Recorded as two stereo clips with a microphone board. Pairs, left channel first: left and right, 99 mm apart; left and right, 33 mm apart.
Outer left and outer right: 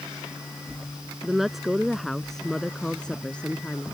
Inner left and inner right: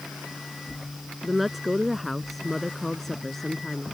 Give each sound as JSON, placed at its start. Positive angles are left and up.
{"t": 1.2, "sound": "a woman speaking", "side_deg": -5}